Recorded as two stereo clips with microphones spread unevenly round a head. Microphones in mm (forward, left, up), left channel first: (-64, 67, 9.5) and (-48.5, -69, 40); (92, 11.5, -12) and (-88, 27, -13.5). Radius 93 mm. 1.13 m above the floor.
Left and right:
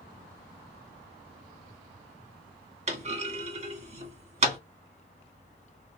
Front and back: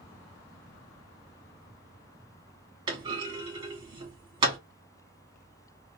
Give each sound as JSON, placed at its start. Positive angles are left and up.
{"t": 2.9, "sound": "a clunk", "azimuth_deg": -120, "distance_m": 1.7}